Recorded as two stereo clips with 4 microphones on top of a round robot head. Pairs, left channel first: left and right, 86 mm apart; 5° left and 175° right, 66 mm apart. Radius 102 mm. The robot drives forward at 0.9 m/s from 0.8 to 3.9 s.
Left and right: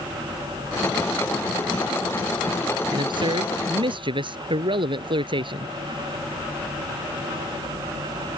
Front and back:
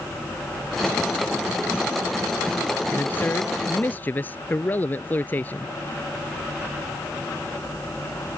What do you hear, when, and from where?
2.9 s a man speaking: 60° right; by 5.8 s 65° right